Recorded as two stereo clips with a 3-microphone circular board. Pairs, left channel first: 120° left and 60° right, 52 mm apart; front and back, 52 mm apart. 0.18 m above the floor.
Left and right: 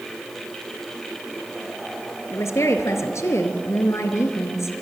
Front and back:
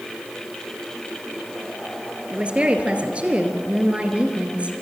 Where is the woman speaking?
115° left, 2.5 m.